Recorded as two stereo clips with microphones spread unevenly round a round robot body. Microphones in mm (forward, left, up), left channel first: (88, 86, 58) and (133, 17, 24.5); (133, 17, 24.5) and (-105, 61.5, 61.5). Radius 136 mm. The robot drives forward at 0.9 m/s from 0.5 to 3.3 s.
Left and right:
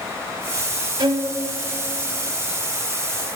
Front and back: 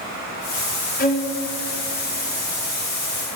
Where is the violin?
60° right, 1.1 m; by 1.3 s 80° right, 1.0 m.